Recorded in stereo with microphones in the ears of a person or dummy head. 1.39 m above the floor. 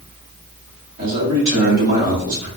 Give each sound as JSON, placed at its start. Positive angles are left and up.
{"t": 1.0, "sound": "a man speaking", "side_deg": -55, "distance_m": 1.8}